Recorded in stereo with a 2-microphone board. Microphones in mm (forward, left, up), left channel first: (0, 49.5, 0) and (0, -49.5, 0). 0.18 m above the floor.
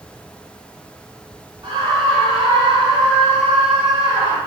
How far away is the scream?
About 4 m.